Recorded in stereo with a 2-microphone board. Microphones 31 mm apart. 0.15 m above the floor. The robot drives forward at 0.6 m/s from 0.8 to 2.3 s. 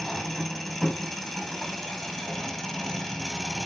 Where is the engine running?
5° left (ahead or behind), 4 m; by 3.7 s 10° left (ahead or behind), 3 m.